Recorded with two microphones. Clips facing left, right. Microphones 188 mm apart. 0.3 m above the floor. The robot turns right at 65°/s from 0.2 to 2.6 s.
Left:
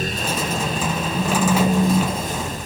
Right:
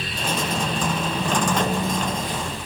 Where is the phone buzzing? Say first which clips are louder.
Left 5 dB; 45° left, 1.1 m; by 2.6 s 135° left, 1.1 m.